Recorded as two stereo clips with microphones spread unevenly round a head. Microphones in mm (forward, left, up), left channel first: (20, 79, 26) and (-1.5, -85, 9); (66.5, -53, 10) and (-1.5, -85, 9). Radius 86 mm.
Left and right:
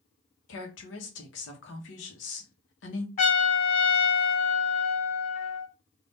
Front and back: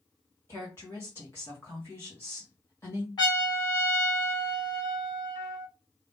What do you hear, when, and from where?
0.5 s a woman speaking: 95° left, 1.1 m
3.2 s a trumpet: 45° left, 1.8 m